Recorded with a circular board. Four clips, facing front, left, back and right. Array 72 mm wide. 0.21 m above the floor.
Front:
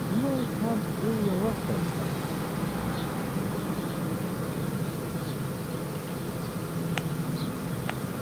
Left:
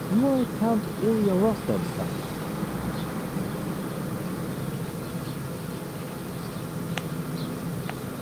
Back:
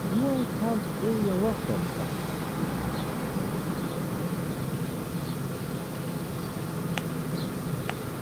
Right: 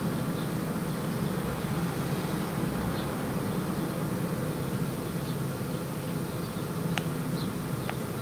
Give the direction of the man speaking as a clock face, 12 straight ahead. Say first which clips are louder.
Left 10 dB, back 2 dB; 9 o'clock.